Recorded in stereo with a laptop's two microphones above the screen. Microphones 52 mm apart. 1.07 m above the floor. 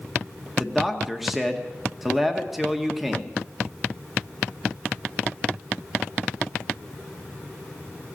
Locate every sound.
0.6 s a man speaking: 5° right (ahead or behind), 1.4 m